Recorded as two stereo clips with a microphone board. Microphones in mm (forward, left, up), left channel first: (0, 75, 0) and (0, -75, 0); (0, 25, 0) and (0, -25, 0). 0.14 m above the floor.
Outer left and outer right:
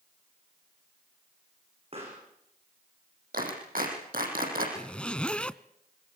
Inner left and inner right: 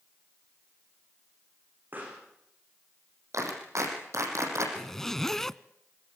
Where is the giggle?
No giggle in this recording.